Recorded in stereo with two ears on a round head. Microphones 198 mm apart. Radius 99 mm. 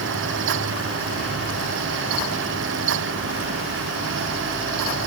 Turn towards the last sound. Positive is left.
No sound to turn to.